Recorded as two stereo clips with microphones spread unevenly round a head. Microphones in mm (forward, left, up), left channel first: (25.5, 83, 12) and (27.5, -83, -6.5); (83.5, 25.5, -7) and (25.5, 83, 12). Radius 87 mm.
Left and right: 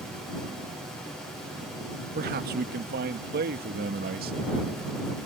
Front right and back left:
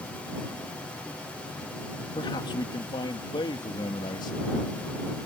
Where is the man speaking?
70° right.